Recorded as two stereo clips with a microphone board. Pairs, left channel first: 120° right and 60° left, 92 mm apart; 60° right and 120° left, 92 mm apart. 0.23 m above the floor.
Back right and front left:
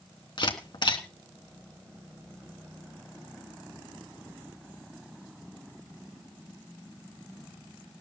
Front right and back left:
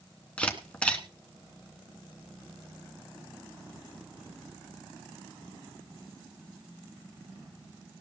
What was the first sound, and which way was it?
A camera shutter, 135° right.